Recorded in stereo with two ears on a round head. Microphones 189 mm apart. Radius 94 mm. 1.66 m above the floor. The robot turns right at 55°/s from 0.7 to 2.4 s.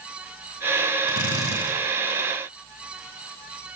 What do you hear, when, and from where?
1.1 s a drill: 110° left, 8.5 m; by 1.7 s 145° left, 8.5 m